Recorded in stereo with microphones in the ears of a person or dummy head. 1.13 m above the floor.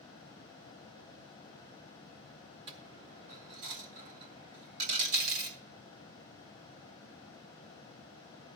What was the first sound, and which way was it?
A dropped coin, 25° right (ahead or behind).